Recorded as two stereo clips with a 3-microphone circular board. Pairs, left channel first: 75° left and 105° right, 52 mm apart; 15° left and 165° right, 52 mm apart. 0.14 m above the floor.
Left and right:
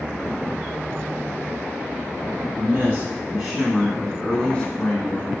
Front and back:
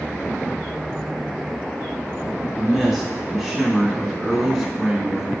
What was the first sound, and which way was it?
A man speaking, 75° right.